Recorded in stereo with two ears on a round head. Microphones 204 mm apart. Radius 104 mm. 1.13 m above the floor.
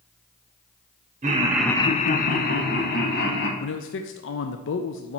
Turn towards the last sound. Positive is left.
turn(degrees=55)  # may be behind; listen again after turning